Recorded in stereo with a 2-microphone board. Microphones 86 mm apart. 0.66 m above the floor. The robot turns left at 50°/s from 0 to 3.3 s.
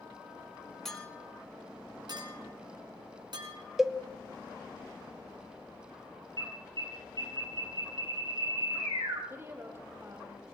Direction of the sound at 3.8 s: 5° right (ahead or behind).